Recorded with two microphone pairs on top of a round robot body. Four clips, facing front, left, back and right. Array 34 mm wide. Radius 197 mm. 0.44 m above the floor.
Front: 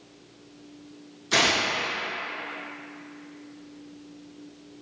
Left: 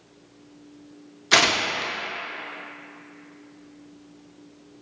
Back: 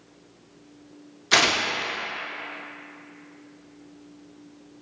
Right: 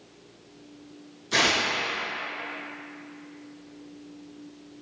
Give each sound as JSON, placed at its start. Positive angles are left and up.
{"t": 1.3, "sound": "tearing paper", "azimuth_deg": 125, "distance_m": 0.7}